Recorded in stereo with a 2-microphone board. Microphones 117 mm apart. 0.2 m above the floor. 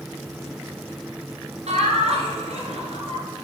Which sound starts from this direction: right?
Laughter, at 1.7 s.